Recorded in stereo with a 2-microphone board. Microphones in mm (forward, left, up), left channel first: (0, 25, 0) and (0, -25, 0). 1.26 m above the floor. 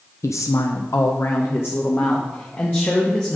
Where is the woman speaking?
75° left (ahead or behind), 0.5 m; by 3.4 s 35° left (ahead or behind), 1.9 m.